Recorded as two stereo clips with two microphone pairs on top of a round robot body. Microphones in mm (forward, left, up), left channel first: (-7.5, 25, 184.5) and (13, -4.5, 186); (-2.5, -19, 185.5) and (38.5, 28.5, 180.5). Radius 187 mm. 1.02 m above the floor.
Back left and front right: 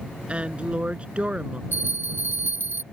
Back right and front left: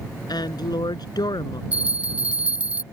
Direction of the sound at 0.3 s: 115° right.